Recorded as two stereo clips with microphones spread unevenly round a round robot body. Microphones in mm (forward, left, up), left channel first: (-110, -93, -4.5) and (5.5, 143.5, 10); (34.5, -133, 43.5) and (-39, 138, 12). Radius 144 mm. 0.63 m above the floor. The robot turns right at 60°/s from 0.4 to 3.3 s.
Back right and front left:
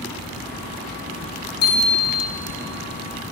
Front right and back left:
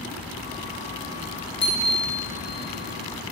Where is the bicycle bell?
145° right, 7 m; by 2.3 s 105° right, 7 m.